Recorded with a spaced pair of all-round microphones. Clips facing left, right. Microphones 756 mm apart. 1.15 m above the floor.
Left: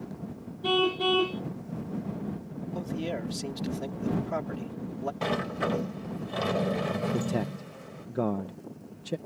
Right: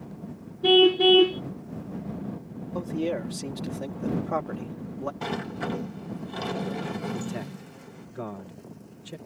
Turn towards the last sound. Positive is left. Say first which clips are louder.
# left 4 dB
turn(degrees=70)  # may be behind; listen again after turning